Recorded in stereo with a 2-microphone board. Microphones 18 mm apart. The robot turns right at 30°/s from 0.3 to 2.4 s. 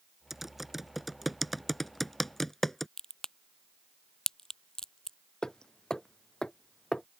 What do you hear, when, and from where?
0.3 s typing on a keyboard: 20° right (ahead or behind); by 2.9 s 10° left (ahead or behind)
3.0 s a crack: 35° left (ahead or behind)
5.4 s hammering: 30° left (ahead or behind)